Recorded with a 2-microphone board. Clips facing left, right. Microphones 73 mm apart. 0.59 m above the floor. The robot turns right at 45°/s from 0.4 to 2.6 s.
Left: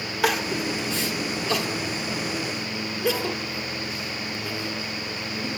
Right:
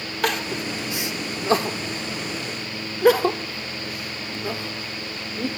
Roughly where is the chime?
I don't hear a chime.